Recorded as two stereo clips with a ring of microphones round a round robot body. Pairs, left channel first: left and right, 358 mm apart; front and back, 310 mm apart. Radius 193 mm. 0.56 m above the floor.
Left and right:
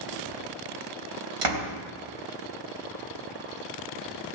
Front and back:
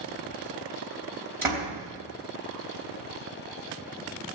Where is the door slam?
95° right, 3 m.